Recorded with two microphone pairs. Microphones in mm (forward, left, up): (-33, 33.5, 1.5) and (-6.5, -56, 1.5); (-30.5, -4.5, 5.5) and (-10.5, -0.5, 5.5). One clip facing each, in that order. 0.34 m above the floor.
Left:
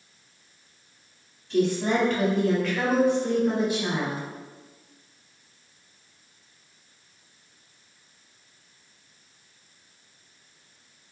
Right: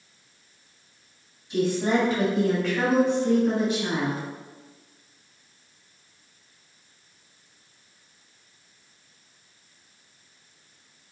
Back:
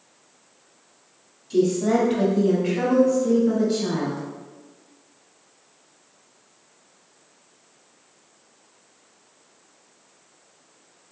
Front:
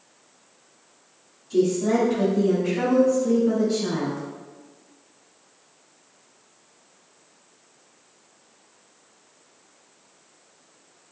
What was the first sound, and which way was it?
A woman speaking, 145° right.